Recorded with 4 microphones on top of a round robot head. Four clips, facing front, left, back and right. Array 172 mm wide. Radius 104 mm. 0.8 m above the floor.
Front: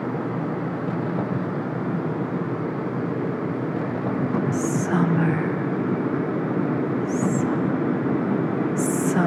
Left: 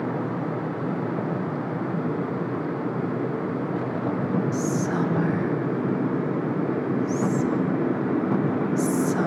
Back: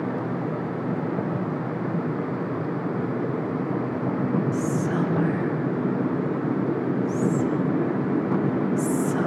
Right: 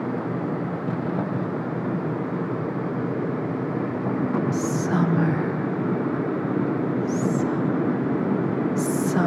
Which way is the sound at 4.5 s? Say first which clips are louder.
Right 1 dB, front 2 dB; 40° right.